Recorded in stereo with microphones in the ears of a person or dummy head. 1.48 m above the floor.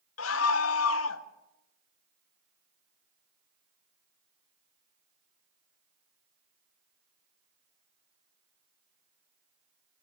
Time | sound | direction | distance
0.2 | a scream | 80° left | 1.1 m